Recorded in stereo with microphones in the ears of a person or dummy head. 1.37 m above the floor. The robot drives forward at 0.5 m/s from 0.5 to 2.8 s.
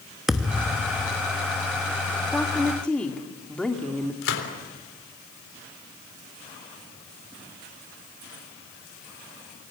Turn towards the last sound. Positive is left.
turn(degrees=85)